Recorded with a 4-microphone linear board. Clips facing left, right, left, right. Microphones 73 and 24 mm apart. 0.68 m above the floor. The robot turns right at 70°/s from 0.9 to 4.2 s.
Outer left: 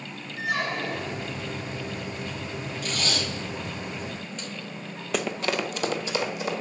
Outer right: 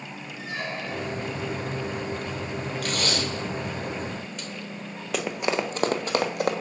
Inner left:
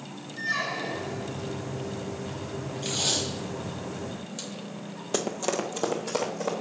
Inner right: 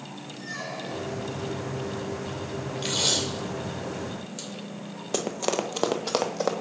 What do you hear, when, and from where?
0.4 s a squeak: 90° left, 0.8 m; by 1.4 s 120° left, 0.8 m
2.8 s tape being pulled: 70° right (ahead or behind), 2.5 m; by 4.5 s 5° right (ahead or behind), 2.5 m
5.1 s running footsteps: centre (ahead or behind), 0.8 m; by 6.5 s 60° right (ahead or behind), 1.3 m